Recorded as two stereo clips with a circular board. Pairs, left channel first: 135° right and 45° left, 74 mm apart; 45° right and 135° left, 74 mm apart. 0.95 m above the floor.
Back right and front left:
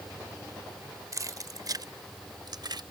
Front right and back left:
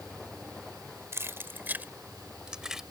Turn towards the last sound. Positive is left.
turn(degrees=50)